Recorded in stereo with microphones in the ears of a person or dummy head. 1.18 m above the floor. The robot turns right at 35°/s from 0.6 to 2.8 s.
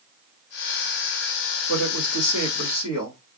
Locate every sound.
1.7 s a woman speaking: 65° left, 1.8 m; by 3.2 s 105° left, 1.8 m